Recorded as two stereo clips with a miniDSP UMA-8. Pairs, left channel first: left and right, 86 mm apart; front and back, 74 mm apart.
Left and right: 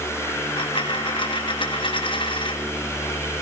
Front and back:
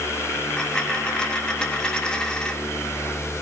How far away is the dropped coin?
About 1.8 m.